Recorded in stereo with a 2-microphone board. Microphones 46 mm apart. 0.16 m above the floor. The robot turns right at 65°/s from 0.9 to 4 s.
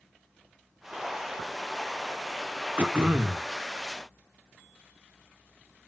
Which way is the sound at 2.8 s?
80° right.